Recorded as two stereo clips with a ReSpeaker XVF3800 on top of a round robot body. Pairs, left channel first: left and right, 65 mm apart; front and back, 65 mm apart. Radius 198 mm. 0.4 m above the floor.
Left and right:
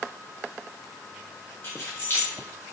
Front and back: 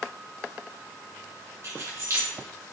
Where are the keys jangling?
140° left, 1.5 m.